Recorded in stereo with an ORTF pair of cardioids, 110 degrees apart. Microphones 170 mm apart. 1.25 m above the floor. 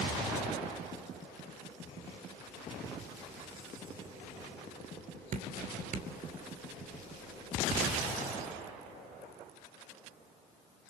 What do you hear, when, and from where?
5.3 s dripping: 50° right, 2.5 m